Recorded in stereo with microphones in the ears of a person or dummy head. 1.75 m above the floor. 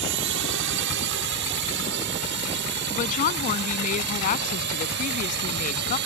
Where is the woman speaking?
40° left (ahead or behind).